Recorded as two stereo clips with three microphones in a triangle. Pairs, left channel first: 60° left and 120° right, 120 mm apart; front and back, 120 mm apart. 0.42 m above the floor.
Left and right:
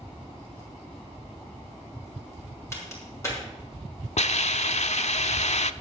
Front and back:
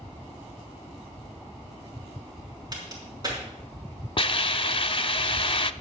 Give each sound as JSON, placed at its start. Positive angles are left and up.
{"t": 2.7, "sound": "a crack", "azimuth_deg": 125, "distance_m": 4.5}
{"t": 4.2, "sound": "a hiss", "azimuth_deg": 45, "distance_m": 0.5}